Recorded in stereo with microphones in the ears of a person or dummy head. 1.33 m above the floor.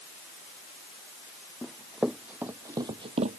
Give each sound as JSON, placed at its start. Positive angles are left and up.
{"t": 1.6, "sound": "running footsteps", "side_deg": 5}